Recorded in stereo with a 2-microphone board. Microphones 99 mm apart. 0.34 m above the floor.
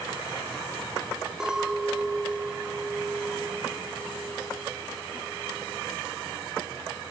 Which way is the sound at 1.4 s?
10° right (ahead or behind).